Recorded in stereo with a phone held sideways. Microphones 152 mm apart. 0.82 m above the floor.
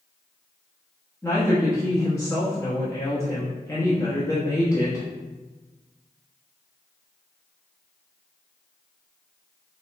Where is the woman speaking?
20° left (ahead or behind), 1.0 m.